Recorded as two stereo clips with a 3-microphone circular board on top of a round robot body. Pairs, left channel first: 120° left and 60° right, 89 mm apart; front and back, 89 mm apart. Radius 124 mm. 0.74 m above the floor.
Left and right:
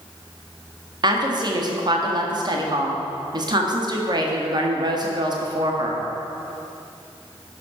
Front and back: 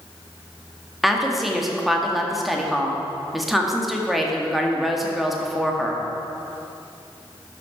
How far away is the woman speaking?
About 1.9 m.